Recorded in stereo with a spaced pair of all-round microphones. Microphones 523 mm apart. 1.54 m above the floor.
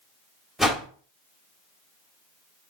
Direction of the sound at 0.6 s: Centre (ahead or behind).